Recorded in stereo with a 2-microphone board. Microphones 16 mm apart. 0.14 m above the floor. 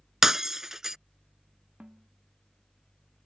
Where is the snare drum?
85° right.